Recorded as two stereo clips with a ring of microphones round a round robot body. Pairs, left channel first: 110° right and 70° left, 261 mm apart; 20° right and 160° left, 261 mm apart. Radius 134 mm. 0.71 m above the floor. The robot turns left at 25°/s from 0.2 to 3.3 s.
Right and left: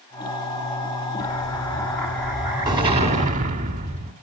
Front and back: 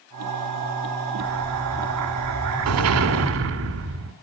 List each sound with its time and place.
1.2 s an explosion: straight behind, 1.7 m; by 4.1 s 125° left, 1.7 m